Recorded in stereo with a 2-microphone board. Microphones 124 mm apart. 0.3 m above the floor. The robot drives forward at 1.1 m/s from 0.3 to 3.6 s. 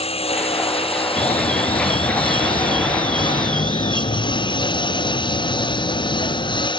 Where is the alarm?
80° left.